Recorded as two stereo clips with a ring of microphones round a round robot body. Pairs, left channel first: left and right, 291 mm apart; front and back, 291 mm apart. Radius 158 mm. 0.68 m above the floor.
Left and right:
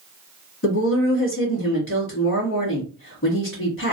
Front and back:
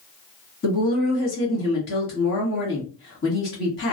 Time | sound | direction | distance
0.6 | a woman speaking | 50° left | 1.8 m